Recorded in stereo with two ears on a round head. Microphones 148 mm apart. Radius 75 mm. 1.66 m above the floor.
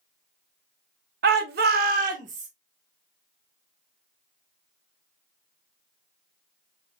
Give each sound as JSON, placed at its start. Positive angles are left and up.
{"t": 1.2, "sound": "a shout", "side_deg": -60, "distance_m": 0.8}